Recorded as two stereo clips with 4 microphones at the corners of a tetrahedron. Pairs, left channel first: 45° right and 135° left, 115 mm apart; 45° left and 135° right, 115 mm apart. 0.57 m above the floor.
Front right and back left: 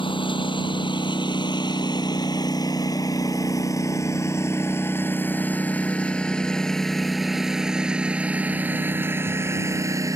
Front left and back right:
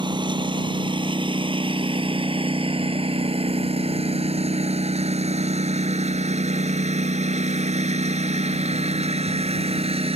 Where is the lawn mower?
90° right; by 10.2 s 165° right.